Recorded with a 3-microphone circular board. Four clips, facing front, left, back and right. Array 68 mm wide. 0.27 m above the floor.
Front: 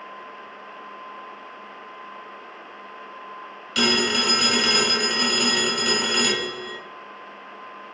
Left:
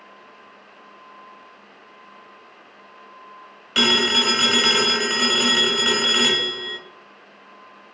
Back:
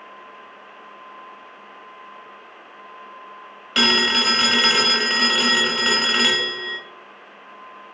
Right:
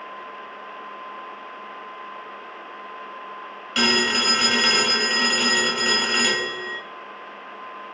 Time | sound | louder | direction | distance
3.8 | a phone ringing | left 1 dB, back 2 dB | 165° left | 0.9 m